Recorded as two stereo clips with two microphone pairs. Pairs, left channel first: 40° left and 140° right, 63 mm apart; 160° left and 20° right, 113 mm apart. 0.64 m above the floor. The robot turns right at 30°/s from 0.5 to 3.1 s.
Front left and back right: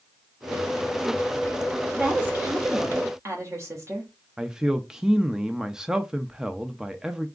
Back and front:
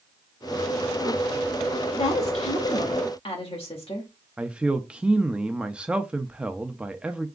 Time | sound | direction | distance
1.9 | a woman speaking | 155° left | 1.9 m
4.4 | a man speaking | 75° right | 0.5 m